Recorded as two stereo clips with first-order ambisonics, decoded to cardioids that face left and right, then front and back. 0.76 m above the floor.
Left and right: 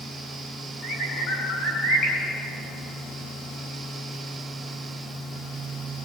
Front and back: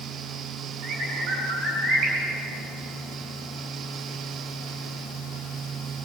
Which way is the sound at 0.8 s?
135° left.